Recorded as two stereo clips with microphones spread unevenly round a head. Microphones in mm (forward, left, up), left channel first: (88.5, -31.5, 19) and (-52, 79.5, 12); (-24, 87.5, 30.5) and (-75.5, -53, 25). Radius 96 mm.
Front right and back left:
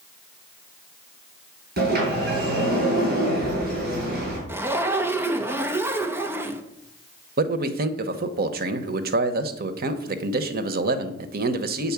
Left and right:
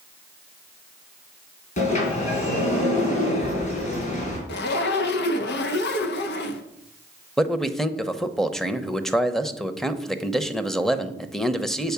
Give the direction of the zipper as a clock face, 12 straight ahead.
10 o'clock.